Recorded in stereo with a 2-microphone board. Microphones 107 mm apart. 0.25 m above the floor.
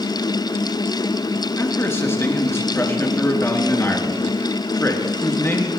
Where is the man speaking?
25° left (ahead or behind), 3 m.